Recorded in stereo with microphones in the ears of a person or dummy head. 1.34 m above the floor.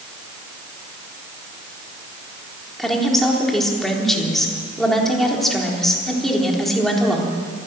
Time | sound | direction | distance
2.8 | a woman speaking | 5° left (ahead or behind) | 3.5 m